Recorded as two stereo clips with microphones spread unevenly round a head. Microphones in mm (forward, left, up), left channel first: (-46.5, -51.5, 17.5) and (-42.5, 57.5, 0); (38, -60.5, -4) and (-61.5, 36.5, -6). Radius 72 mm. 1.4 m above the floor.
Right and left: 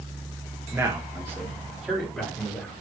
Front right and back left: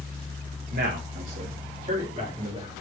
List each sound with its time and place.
0.7 s a man speaking: 165° left, 1.5 m; by 2.8 s 165° right, 4.5 m